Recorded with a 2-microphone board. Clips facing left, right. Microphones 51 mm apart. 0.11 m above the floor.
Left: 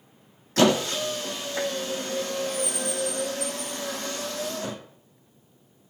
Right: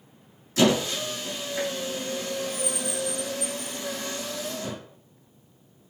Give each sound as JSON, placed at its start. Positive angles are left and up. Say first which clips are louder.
{"t": 0.6, "sound": "a squeak", "louder": "left 1 dB", "side_deg": 55, "distance_m": 0.8}